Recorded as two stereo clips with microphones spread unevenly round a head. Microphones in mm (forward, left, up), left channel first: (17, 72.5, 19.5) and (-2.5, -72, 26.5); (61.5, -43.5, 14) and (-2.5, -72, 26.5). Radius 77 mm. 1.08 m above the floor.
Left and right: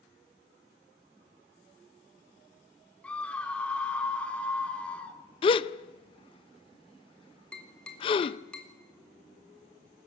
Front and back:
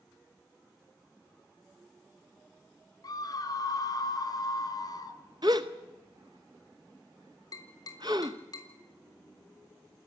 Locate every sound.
3.0 s a scream: straight ahead, 3.5 m
5.4 s a gasp: 140° left, 0.6 m
7.5 s tapping: straight ahead, 4 m